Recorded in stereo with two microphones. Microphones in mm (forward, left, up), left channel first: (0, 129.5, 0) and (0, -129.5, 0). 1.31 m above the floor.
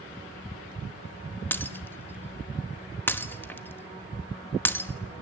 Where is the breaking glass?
10° left (ahead or behind), 1.0 m.